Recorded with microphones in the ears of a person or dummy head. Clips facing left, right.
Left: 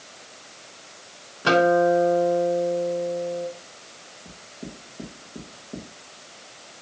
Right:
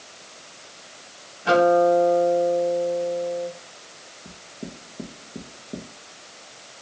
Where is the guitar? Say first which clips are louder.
Right 1 dB; 75° left (ahead or behind), 3 m.